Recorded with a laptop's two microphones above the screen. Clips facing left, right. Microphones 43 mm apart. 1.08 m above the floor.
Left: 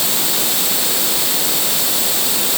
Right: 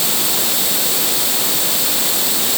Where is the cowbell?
I don't hear a cowbell.